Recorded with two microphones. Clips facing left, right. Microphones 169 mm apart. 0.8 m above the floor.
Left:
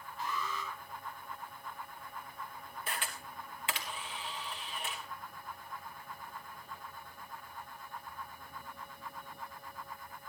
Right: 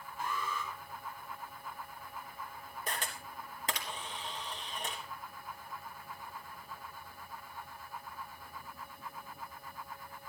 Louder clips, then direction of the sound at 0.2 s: Right 1 dB; 50° right (ahead or behind).